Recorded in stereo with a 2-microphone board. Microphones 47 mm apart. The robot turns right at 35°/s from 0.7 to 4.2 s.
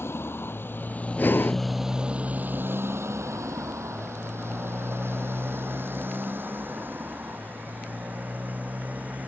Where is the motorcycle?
55° left (ahead or behind); by 9.3 s 35° right (ahead or behind).